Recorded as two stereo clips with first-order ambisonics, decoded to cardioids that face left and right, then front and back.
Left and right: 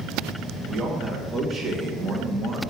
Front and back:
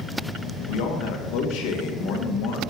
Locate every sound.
0.7 s a man speaking: 5° right, 1.9 m